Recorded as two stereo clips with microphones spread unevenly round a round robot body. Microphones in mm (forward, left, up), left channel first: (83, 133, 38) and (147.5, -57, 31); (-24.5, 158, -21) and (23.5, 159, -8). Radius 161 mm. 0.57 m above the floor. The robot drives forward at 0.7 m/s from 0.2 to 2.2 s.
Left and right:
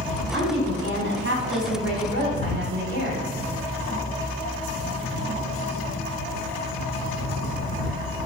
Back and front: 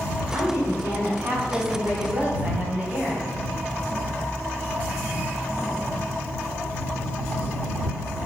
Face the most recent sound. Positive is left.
turn(degrees=-85)